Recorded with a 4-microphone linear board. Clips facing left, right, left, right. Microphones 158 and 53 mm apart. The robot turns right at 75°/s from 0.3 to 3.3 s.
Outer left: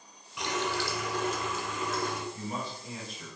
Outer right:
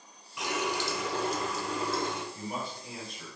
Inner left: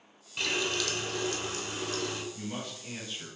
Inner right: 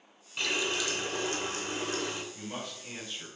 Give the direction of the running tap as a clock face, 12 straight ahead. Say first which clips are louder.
Even, even; 6 o'clock.